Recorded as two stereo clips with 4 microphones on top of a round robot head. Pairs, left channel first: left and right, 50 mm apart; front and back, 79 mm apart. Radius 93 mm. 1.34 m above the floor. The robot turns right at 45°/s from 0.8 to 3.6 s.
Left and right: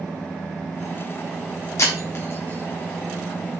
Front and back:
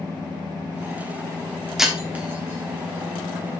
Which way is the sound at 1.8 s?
95° left.